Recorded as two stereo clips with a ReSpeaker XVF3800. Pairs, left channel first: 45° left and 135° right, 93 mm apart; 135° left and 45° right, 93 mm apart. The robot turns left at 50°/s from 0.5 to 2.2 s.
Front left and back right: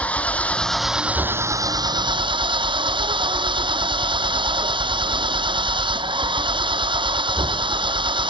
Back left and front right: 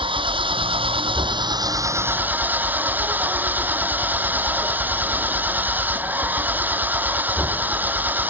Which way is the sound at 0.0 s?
30° right.